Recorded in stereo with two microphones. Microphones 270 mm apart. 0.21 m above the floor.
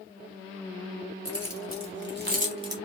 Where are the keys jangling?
65° right (ahead or behind), 1.4 m; by 2.8 s 15° right (ahead or behind), 0.9 m.